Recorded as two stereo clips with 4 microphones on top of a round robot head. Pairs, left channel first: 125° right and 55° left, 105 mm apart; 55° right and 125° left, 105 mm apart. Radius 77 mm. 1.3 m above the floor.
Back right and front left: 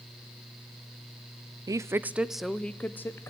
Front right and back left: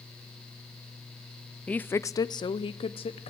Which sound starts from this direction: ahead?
A woman speaking, at 1.7 s.